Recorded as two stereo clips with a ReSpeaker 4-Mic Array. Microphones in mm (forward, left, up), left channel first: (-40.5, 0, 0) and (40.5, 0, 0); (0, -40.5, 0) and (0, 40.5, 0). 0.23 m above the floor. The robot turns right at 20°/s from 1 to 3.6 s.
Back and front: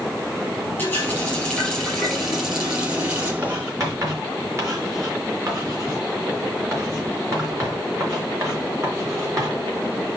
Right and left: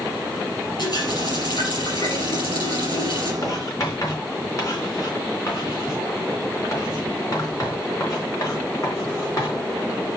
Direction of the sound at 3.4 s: 50° right.